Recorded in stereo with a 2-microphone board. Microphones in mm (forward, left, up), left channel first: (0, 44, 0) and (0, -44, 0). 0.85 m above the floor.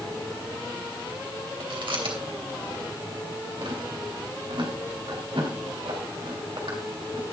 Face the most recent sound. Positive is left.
turn(degrees=-85)